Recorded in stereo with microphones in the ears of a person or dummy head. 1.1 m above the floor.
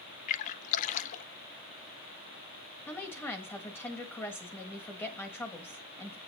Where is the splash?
45° left (ahead or behind), 0.5 m.